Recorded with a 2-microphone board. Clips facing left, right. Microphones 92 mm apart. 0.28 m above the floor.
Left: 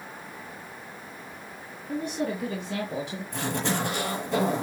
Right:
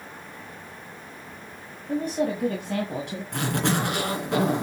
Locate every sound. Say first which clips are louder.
1.9 s a woman speaking: right 4 dB; 40° right (ahead or behind), 1.8 m; by 3.2 s 60° right (ahead or behind), 2.5 m
3.3 s a zipper: right 3 dB; 65° right (ahead or behind), 3 m